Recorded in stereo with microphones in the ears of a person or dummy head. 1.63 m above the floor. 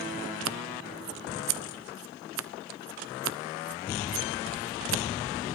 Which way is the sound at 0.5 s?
70° right (ahead or behind).